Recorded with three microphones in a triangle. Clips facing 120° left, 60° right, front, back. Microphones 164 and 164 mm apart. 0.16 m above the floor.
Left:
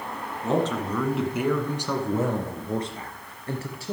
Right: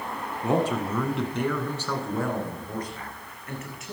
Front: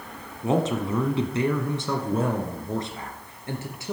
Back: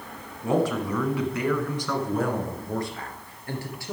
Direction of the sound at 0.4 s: 20° right.